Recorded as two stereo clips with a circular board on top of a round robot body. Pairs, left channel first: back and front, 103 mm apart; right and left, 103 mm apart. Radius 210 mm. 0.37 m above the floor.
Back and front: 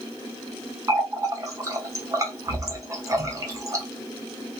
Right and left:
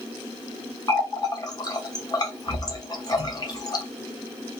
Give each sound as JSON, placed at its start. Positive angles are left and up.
{"t": 0.9, "sound": "a running tap", "azimuth_deg": -50, "distance_m": 1.0}